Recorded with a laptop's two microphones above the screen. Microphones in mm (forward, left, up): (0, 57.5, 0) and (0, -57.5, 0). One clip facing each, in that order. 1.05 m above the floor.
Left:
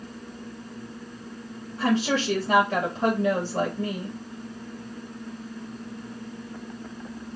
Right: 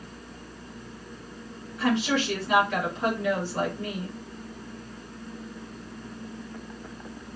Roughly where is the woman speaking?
Left.